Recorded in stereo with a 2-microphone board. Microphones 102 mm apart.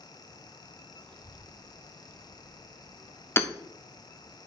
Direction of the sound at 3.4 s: 25° left (ahead or behind).